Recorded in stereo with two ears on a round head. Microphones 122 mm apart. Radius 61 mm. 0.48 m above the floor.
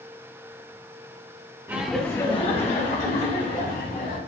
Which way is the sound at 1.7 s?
15° right (ahead or behind).